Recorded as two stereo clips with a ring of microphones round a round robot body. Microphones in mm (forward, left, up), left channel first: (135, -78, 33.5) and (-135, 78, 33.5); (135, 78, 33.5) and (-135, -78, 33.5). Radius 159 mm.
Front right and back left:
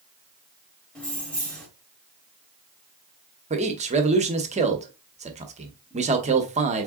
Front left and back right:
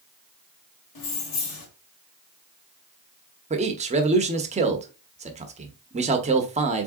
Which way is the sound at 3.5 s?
Straight behind.